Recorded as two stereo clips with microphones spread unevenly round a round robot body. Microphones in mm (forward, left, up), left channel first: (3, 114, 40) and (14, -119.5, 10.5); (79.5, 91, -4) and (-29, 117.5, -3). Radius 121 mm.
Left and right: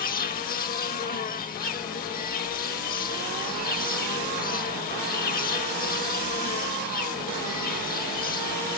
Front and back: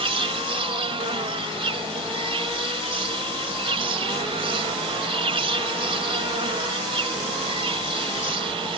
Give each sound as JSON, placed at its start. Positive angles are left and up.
{"t": 0.0, "sound": "an insect", "azimuth_deg": 145}